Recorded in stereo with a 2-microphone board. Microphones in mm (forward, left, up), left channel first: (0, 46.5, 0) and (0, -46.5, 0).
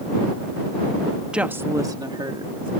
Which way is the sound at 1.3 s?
10° right (ahead or behind).